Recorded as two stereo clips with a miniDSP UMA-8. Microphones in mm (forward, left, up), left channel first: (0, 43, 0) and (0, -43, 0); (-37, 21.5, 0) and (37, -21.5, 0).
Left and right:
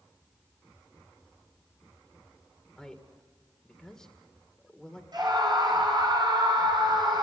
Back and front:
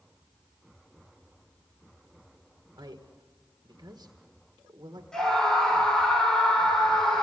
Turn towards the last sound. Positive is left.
turn(degrees=-125)